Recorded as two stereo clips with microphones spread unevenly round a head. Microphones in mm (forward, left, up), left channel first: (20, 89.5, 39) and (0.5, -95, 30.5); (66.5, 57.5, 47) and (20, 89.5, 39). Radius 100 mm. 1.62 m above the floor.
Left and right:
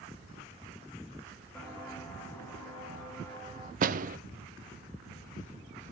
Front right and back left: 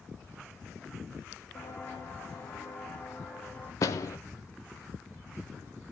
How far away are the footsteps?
About 4 m.